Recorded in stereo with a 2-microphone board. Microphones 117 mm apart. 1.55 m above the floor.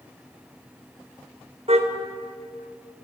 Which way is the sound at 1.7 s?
65° right (ahead or behind).